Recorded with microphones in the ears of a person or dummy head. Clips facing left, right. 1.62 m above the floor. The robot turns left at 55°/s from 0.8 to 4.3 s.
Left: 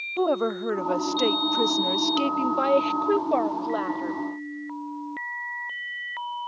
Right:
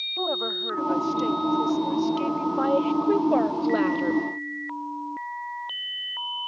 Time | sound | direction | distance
0.2 | a woman speaking | 135° left | ?